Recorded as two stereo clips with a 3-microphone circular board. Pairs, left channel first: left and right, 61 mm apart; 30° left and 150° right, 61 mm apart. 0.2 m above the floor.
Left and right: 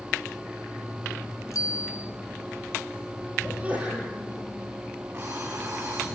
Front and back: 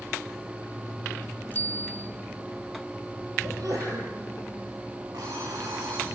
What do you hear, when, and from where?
1.5 s a bicycle bell: 90° left, 2 m
3.4 s a sneeze: 155° right, 6.5 m
5.1 s an alarm clock: 145° right, 9.5 m